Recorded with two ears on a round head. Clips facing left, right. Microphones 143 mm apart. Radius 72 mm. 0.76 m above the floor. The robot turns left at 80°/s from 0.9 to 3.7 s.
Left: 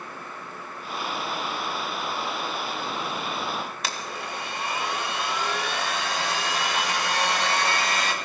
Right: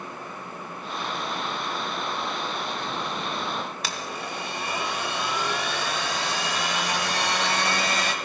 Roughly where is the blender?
Right.